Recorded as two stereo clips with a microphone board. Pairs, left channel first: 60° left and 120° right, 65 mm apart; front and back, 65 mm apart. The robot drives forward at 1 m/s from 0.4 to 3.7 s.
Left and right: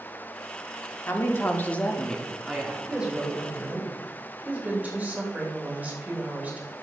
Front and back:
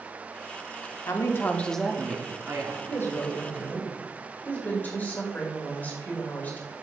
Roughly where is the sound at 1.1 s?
Ahead.